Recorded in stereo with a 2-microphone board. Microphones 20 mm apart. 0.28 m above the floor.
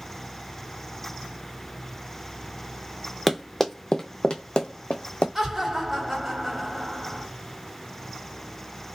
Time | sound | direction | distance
3.3 | running footsteps | 5° left (ahead or behind) | 0.6 m
5.3 | laughter | 20° right (ahead or behind) | 1.6 m